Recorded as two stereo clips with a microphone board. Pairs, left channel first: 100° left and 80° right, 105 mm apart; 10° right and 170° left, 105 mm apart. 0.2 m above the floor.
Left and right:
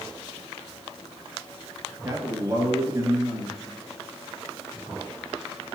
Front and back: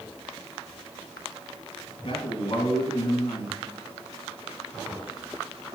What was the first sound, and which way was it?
A man speaking, 25° right.